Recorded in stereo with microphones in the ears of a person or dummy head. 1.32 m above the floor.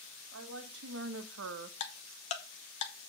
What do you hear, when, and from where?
0.3 s a woman speaking: 65° right (ahead or behind), 2 m; by 1.7 s 55° right (ahead or behind), 0.8 m
1.8 s ticking: 35° left (ahead or behind), 1.0 m